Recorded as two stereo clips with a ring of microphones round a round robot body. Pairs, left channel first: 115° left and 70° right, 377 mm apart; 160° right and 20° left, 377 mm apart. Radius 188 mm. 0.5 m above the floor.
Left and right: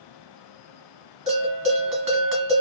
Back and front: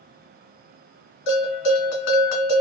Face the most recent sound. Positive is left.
turn(degrees=-140)